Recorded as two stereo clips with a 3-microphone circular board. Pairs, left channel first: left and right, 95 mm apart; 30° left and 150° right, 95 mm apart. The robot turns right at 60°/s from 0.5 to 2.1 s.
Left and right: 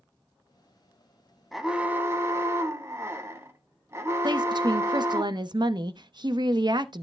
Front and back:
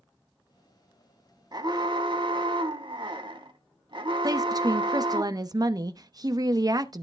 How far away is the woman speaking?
About 0.8 m.